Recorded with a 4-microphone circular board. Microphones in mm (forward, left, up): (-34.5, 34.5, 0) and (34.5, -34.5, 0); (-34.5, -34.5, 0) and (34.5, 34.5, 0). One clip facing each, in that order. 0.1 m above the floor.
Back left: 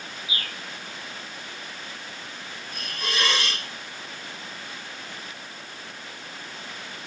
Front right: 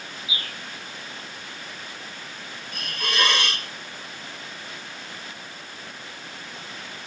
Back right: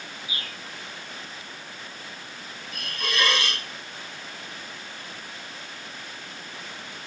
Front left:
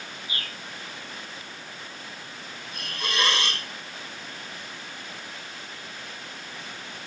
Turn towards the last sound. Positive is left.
turn(degrees=-20)